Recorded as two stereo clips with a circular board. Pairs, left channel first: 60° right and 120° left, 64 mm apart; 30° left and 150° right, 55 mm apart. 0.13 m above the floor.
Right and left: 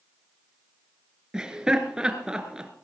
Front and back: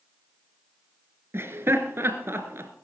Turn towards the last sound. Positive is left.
turn(degrees=-165)